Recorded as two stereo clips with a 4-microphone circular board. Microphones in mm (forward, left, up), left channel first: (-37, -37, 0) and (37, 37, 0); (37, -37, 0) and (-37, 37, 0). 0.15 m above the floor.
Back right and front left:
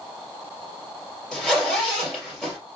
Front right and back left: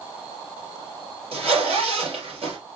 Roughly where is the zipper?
Behind left.